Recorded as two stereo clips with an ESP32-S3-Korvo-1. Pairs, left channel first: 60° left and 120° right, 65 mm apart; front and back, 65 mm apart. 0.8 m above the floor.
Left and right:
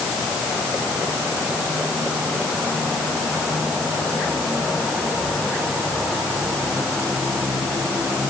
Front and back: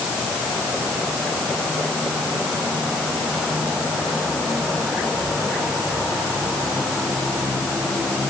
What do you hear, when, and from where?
Only background noise.